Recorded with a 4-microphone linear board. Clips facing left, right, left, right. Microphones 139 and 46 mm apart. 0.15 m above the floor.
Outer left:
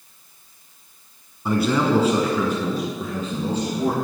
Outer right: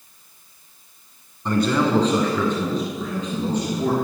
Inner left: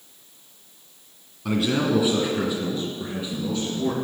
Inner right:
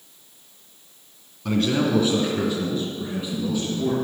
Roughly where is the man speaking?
Centre.